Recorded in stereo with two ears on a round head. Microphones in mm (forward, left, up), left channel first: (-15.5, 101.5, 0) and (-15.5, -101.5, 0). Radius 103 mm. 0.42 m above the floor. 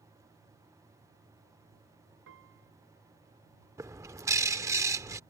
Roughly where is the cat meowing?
No cat meowing in this recording.